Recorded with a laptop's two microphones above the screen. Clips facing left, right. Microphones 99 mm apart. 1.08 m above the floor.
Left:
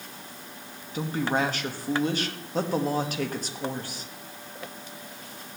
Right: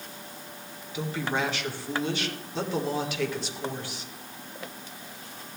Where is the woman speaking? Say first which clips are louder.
Left 3 dB; 45° left (ahead or behind), 1.5 m.